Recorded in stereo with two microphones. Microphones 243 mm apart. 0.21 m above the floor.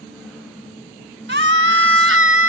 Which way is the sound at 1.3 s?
50° right (ahead or behind).